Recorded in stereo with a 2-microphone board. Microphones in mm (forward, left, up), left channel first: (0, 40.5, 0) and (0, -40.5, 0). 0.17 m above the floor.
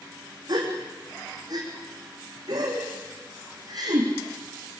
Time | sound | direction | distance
0.5 | a gasp | 55° right (ahead or behind) | 6 m